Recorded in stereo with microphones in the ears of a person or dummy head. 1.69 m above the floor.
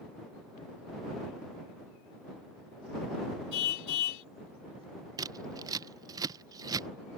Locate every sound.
3.5 s a car horn: 60° left (ahead or behind)
5.2 s scissors: 20° right (ahead or behind)